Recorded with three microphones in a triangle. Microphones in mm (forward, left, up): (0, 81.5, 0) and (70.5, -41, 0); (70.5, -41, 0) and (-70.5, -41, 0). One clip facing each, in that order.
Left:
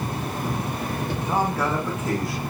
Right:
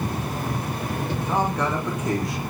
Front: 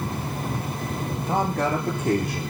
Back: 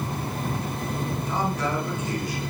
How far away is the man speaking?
About 10 m.